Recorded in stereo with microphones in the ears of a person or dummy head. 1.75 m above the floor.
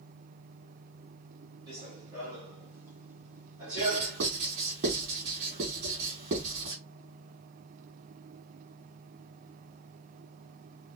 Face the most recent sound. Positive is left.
turn(degrees=-40)  # may be behind; listen again after turning